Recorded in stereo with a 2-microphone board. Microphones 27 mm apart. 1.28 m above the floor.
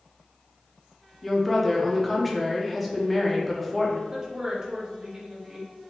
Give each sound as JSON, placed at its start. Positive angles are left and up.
{"t": 1.2, "sound": "a woman speaking", "side_deg": 5, "distance_m": 1.0}
{"t": 4.1, "sound": "a woman speaking", "side_deg": -25, "distance_m": 1.2}